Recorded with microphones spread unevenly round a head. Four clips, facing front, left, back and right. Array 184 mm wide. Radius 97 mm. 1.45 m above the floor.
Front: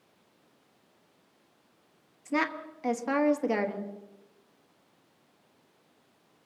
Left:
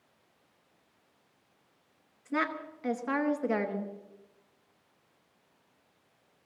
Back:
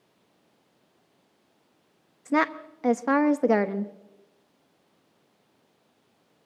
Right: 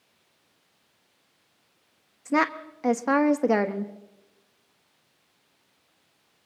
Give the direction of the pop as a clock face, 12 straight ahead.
I don't hear a pop.